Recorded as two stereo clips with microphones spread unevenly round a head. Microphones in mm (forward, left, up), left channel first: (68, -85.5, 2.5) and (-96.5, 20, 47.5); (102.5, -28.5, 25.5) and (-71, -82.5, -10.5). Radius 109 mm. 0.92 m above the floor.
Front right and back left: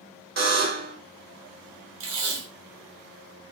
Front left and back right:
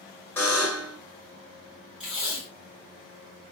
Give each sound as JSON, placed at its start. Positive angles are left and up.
{"t": 0.4, "sound": "a buzzer", "azimuth_deg": 100, "distance_m": 2.5}
{"t": 2.0, "sound": "tape being pulled", "azimuth_deg": 110, "distance_m": 4.0}